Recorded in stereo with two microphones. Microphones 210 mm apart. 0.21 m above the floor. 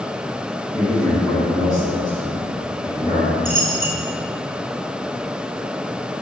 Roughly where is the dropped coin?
Right.